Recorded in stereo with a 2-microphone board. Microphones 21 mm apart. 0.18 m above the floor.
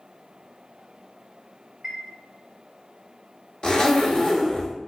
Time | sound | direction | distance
1.8 | a chime | 15° right (ahead or behind) | 0.8 m
3.6 | a zipper | 40° left (ahead or behind) | 0.8 m